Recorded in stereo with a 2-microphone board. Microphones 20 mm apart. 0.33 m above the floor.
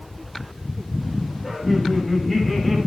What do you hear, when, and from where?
1.4 s laughter: 10° left (ahead or behind), 7.5 m; by 2.8 s 5° left (ahead or behind), 6.5 m